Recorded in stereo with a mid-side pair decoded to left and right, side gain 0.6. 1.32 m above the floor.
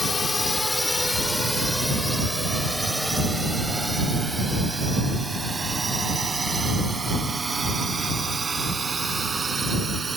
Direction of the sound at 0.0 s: 20° left.